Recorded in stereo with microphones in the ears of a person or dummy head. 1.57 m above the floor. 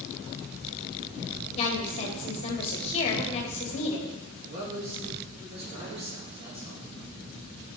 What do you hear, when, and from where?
1.6 s a woman speaking: 35° left (ahead or behind), 2 m
4.5 s a man speaking: 35° right (ahead or behind), 3 m